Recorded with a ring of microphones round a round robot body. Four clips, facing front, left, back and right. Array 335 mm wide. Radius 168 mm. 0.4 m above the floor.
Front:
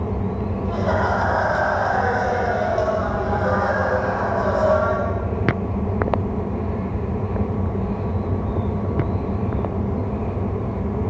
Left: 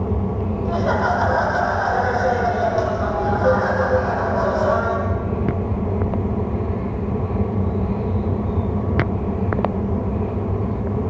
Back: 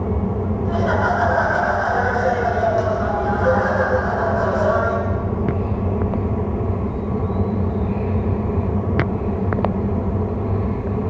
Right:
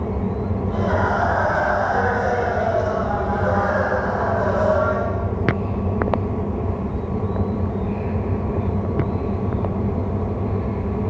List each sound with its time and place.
0.7 s laughter: 110° left, 6.5 m